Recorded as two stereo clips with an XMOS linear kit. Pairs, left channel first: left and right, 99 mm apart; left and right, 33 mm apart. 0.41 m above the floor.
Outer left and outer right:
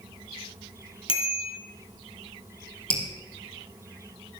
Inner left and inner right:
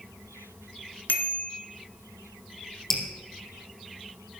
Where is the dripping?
10° left (ahead or behind), 3.5 m.